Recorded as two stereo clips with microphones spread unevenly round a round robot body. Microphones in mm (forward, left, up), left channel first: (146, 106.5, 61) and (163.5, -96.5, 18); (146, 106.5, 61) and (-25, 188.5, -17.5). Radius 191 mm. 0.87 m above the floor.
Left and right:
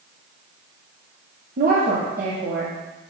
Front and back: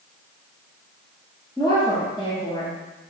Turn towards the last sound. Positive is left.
turn(degrees=-120)